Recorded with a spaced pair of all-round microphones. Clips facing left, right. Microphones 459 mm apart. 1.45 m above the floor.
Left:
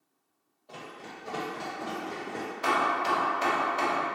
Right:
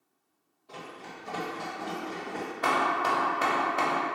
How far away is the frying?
I don't hear frying.